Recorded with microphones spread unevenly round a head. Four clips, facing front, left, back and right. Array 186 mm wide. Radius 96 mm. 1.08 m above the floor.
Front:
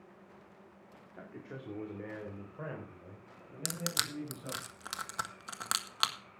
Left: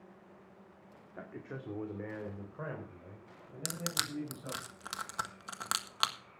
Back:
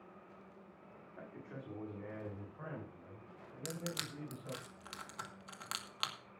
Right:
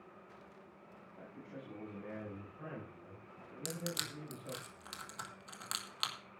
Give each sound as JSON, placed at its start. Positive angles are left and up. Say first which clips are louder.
{"t": 1.1, "sound": "a man speaking", "louder": "left 6 dB, front 3 dB", "azimuth_deg": 70, "distance_m": 2.0}
{"t": 3.6, "sound": "crushing", "louder": "left 3 dB, front 4 dB", "azimuth_deg": 40, "distance_m": 1.5}